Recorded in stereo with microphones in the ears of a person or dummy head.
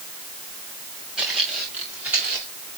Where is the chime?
No chime in this recording.